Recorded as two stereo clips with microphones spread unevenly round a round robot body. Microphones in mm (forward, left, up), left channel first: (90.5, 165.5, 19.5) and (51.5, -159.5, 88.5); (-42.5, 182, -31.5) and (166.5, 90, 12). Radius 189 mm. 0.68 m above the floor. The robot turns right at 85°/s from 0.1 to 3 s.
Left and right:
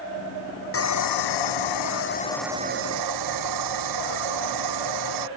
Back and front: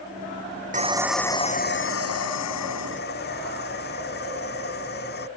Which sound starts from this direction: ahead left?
Sawing, at 0.7 s.